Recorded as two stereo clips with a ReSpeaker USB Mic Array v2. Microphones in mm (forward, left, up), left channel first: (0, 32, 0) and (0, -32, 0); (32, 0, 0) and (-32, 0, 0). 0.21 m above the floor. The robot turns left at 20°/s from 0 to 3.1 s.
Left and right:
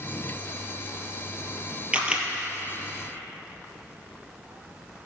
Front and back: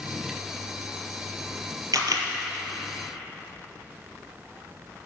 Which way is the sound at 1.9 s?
160° right.